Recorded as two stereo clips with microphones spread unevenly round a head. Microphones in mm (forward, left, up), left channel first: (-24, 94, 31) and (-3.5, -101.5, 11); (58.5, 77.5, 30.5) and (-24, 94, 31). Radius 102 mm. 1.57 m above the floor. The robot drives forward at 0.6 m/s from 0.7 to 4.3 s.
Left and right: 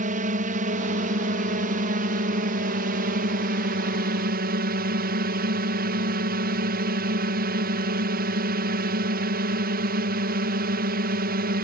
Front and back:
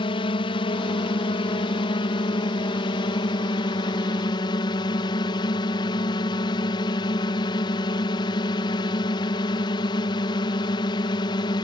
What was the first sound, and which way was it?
A drone, 35° right.